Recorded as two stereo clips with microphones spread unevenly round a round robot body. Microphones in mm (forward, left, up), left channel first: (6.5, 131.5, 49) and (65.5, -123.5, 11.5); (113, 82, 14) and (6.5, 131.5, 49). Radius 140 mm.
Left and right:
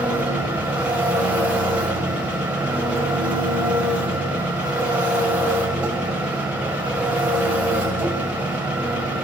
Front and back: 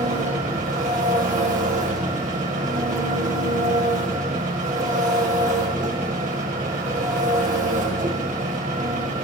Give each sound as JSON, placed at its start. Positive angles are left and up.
{"t": 0.0, "sound": "an engine running", "azimuth_deg": -160, "distance_m": 1.8}